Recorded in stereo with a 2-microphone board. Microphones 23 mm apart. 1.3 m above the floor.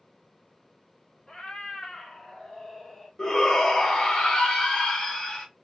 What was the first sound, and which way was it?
A cat meowing, 35° left (ahead or behind).